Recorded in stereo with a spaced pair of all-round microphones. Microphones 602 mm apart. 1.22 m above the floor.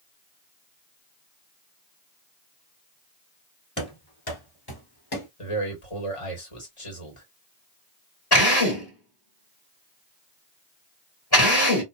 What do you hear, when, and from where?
3.8 s running footsteps: 20° left (ahead or behind), 1.6 m; by 5.3 s 40° left (ahead or behind), 1.5 m
5.4 s a man speaking: 55° left (ahead or behind), 1.8 m
8.3 s a drill: 40° left (ahead or behind), 1.7 m